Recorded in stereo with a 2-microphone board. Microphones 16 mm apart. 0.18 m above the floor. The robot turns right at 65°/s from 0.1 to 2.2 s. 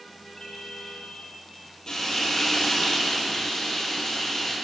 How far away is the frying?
About 2.5 m.